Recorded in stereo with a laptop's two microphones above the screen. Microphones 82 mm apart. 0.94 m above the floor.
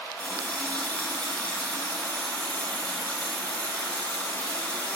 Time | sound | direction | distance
0.2 | a running tap | 15° left (ahead or behind) | 2.0 m